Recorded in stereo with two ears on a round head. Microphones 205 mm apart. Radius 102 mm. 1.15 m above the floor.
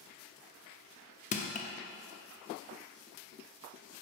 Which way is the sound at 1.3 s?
35° left (ahead or behind).